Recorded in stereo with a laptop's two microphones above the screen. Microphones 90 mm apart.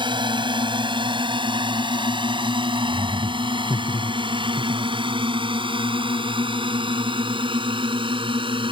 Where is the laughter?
65° right (ahead or behind).